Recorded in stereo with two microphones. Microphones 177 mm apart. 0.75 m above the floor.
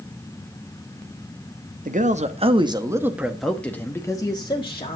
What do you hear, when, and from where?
1.9 s a man speaking: 50° right (ahead or behind), 1.0 m; by 5.0 s 30° left (ahead or behind), 1.5 m